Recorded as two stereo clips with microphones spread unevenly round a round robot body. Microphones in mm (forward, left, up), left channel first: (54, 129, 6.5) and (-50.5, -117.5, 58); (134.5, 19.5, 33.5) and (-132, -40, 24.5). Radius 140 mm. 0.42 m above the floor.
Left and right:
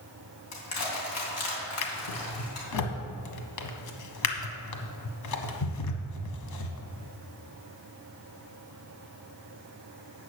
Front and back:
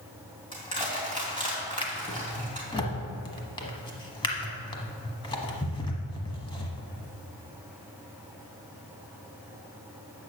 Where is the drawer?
85° left, 1.1 m.